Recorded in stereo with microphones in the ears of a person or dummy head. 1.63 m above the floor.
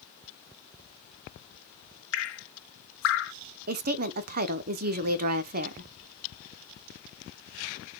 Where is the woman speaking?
45° right (ahead or behind), 0.6 m.